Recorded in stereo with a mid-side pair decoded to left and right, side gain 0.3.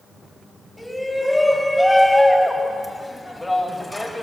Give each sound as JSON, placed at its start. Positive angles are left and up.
{"t": 0.8, "sound": "a shout", "azimuth_deg": 15, "distance_m": 6.5}